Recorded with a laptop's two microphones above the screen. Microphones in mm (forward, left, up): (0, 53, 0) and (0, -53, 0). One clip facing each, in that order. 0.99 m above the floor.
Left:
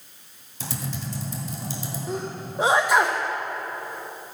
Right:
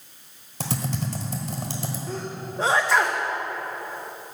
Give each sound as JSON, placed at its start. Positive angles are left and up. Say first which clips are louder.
{"t": 0.6, "sound": "typing on a keyboard", "louder": "right 4 dB", "side_deg": -65, "distance_m": 1.3}
{"t": 2.1, "sound": "a sneeze", "louder": "left 2 dB", "side_deg": 15, "distance_m": 0.5}